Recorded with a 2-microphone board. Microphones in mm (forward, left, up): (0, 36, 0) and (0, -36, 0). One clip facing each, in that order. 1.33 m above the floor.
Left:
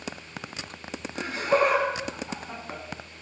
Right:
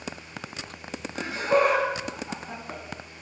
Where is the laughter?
25° right (ahead or behind), 1.8 m.